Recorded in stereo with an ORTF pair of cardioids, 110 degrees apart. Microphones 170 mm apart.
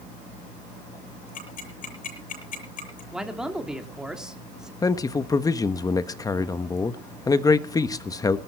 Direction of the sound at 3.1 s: 5° right.